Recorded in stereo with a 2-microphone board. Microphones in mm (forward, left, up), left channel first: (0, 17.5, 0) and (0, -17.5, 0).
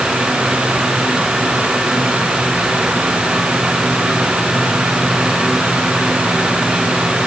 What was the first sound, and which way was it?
Only background noise.